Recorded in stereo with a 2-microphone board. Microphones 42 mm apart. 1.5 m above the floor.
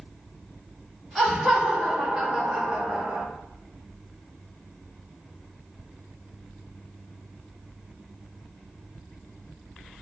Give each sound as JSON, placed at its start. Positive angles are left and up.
{"t": 1.1, "sound": "laughter", "side_deg": 10, "distance_m": 1.5}